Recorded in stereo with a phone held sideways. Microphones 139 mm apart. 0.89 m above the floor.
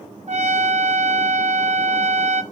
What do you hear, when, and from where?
0.3 s a trumpet: 55° right (ahead or behind), 1.5 m